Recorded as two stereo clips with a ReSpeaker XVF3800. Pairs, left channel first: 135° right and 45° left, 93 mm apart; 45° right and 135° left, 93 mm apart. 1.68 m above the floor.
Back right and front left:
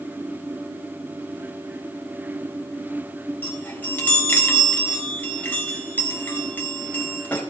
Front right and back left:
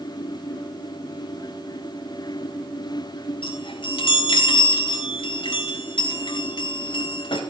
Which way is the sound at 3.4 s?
65° right.